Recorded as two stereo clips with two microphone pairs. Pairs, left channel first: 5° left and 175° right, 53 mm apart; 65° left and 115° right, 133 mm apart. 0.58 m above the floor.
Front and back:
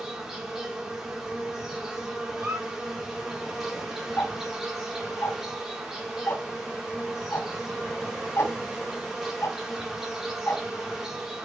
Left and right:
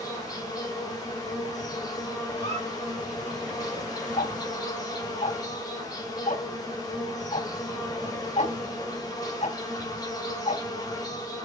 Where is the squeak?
110° left, 4.5 m.